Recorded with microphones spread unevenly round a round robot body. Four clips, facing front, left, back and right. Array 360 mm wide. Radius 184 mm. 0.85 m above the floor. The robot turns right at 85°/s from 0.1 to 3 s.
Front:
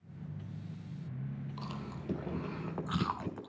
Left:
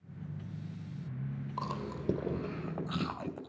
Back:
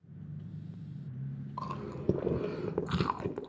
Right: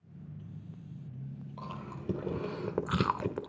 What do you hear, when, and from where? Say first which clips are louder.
1.6 s chewing: left 5 dB, back 4 dB; 115° left, 2 m; by 3.5 s 120° right, 2 m